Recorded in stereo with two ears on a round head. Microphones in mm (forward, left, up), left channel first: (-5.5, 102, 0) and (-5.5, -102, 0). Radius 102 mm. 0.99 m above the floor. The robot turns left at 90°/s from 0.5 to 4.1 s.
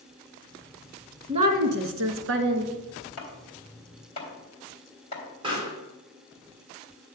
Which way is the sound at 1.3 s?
25° right.